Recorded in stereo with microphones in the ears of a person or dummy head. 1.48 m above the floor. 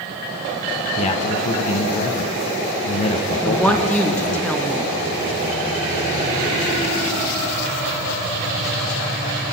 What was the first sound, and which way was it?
A man speaking, 40° left (ahead or behind).